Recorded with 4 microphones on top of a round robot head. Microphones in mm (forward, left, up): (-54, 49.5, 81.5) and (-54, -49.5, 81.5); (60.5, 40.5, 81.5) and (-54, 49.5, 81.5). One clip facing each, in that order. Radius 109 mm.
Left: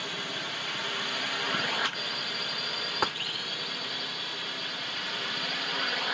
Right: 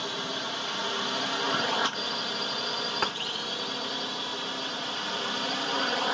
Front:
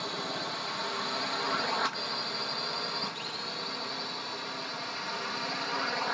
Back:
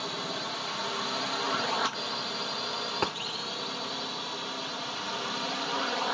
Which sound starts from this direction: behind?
Tapping, at 3.0 s.